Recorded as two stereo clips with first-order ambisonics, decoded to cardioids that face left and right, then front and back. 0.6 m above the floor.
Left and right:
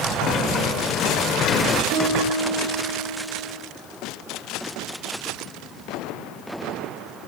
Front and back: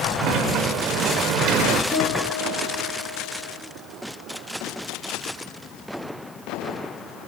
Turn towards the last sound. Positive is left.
turn(degrees=-85)